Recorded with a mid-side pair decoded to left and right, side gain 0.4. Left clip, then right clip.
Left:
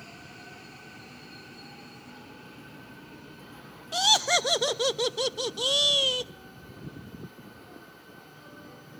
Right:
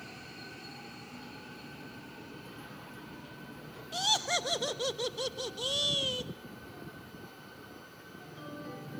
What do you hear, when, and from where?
3.9 s laughter: 55° left, 0.5 m